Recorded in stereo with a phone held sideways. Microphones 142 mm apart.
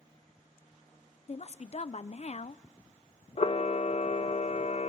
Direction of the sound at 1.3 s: 50° left (ahead or behind).